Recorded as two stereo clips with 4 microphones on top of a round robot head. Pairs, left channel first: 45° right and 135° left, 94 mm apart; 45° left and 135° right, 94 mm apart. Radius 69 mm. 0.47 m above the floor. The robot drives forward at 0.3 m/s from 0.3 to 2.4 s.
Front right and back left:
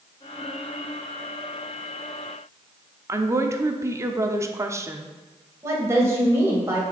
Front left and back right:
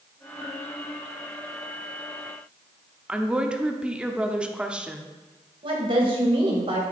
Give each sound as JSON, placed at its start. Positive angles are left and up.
{"t": 3.1, "sound": "a woman speaking", "azimuth_deg": 155, "distance_m": 0.8}
{"t": 5.6, "sound": "a woman speaking", "azimuth_deg": -165, "distance_m": 2.5}